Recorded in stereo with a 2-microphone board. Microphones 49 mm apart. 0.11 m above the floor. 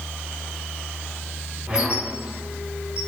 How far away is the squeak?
About 2 m.